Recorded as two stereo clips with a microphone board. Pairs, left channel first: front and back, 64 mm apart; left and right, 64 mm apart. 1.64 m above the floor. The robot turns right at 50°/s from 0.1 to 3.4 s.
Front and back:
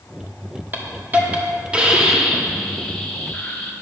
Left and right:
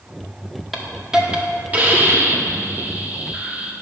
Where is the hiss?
Straight behind, 1.3 m; by 3.7 s 45° right, 1.3 m.